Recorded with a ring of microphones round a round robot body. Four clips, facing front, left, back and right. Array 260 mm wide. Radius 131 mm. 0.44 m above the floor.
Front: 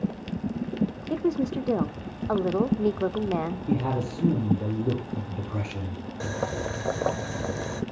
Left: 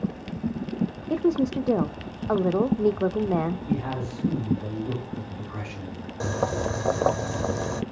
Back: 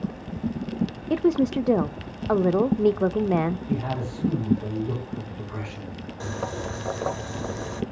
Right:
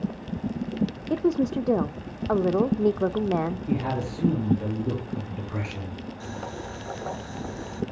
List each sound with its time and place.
1.1 s a woman speaking: 175° right, 0.7 m
3.7 s a man speaking: 30° right, 8.5 m
6.2 s boiling: 70° left, 1.1 m